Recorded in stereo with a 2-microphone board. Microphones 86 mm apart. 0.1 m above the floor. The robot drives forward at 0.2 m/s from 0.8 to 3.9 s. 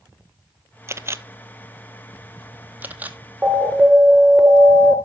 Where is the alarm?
5° right (ahead or behind), 1.5 m.